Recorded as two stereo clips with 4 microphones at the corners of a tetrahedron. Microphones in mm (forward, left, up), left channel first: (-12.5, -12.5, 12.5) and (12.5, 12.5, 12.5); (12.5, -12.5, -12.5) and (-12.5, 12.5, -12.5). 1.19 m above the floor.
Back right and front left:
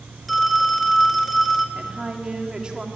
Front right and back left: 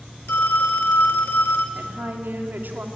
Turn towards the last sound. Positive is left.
turn(degrees=110)